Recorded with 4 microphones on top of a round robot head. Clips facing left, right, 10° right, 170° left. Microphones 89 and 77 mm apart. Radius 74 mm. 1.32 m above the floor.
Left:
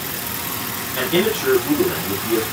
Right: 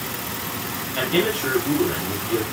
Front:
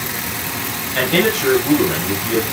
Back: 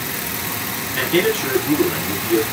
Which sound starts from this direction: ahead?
A man speaking, at 0.9 s.